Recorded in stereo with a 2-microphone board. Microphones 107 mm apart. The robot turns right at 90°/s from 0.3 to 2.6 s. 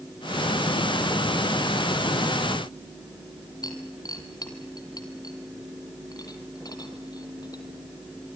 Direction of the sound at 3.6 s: 40° left (ahead or behind).